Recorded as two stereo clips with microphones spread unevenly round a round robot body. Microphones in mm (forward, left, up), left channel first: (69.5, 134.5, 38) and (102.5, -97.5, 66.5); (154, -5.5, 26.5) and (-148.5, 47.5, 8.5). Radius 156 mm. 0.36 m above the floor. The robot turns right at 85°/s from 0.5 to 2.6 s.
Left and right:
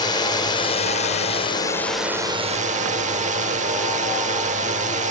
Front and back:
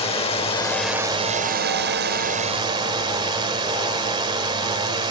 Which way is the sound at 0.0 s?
55° left.